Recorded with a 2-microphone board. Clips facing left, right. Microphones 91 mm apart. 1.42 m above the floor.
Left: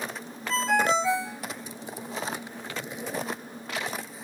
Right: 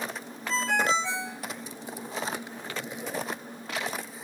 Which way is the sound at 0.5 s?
Centre (ahead or behind).